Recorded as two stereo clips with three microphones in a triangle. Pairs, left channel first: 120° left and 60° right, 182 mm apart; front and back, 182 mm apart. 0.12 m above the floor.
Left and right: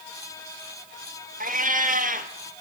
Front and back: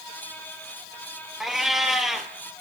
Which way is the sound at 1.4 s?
90° right.